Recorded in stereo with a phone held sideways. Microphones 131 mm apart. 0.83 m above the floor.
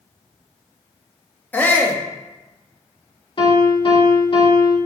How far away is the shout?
About 1.2 m.